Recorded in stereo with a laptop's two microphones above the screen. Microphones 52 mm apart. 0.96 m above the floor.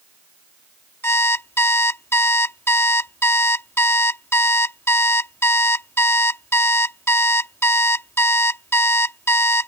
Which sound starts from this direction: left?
An alarm clock, at 1.0 s.